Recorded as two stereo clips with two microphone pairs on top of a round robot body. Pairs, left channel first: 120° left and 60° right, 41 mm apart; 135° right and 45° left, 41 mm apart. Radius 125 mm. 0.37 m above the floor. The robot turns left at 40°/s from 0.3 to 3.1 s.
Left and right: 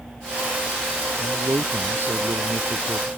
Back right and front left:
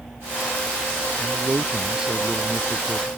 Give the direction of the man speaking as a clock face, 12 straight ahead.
12 o'clock.